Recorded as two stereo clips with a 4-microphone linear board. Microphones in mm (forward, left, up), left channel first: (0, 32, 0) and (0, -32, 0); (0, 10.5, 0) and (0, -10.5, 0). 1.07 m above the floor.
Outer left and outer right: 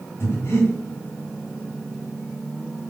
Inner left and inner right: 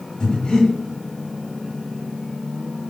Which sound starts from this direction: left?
Breathing, at 0.2 s.